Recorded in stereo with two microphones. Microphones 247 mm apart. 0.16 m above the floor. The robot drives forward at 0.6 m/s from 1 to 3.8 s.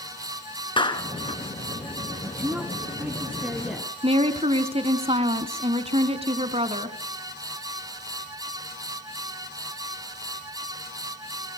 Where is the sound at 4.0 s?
25° right (ahead or behind), 1.2 m.